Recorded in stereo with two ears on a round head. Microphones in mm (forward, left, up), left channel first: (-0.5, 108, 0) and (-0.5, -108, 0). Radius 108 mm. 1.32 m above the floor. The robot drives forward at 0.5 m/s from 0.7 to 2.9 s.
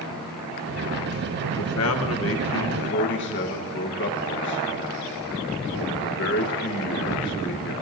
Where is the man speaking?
70° left (ahead or behind), 1.4 m; by 7.7 s 50° left (ahead or behind), 1.7 m.